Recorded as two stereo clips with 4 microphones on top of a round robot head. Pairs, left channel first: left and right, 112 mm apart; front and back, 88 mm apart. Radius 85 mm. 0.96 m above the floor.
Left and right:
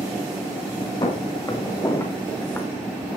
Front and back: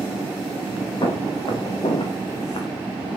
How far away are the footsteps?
About 6 m.